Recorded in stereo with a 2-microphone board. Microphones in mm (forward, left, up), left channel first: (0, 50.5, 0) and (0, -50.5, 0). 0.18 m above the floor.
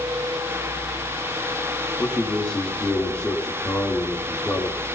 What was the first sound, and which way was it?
A man speaking, 10° left (ahead or behind).